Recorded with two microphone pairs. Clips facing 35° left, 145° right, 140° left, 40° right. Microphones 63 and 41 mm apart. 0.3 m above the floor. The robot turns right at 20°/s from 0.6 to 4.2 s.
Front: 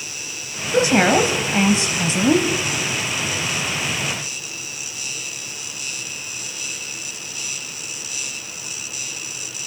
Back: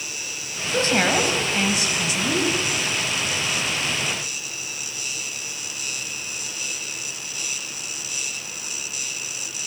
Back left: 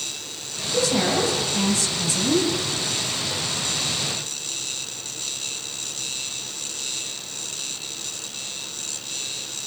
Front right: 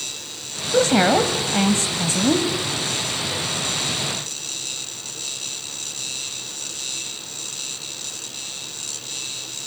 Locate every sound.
0.7 s a woman speaking: 40° right, 1.6 m; by 2.5 s 5° right, 1.6 m